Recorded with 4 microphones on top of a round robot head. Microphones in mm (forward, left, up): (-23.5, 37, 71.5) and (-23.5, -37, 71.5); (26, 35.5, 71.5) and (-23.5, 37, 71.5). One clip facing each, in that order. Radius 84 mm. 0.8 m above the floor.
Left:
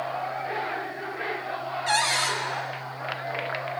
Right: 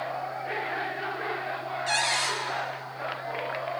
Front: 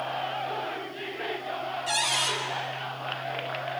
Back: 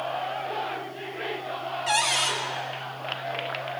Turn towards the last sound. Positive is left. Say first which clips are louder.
# left 3 dB, back 4 dB
turn(degrees=135)